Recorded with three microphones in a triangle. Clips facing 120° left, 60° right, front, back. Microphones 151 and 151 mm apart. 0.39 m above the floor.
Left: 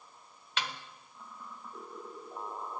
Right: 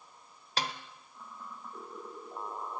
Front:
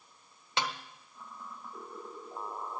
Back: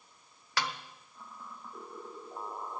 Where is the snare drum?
55° right, 1.1 m.